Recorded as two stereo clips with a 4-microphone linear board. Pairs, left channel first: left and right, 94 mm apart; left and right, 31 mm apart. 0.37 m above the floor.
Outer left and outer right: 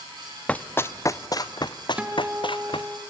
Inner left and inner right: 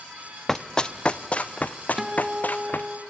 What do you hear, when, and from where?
0.5 s running footsteps: 15° left (ahead or behind), 0.7 m; by 2.9 s 65° left (ahead or behind), 1.5 m
2.0 s a guitar: 10° right (ahead or behind), 1.7 m